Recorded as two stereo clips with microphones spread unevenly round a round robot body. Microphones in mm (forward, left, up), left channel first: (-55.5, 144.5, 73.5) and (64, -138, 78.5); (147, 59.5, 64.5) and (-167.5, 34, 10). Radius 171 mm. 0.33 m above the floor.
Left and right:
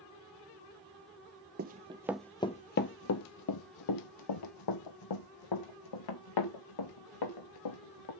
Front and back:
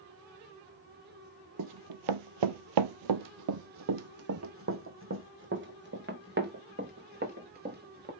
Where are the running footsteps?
125° right, 0.6 m; by 8.1 s 120° left, 3 m.